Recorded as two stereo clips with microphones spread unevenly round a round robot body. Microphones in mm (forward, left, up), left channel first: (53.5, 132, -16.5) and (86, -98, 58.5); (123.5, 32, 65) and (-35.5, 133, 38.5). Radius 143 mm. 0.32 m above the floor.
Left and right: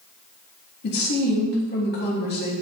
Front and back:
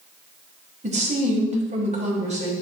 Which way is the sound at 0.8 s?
110° left.